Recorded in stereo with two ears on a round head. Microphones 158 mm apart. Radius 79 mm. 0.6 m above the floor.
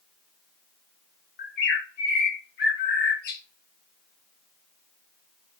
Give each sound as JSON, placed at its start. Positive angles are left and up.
{"t": 1.4, "sound": "a bird", "side_deg": 60, "distance_m": 0.6}